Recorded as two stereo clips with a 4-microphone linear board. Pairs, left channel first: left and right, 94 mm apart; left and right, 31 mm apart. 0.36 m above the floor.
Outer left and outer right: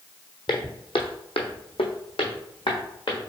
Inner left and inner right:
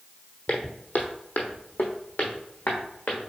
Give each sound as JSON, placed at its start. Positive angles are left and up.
{"t": 0.5, "sound": "footsteps", "side_deg": 55, "distance_m": 1.0}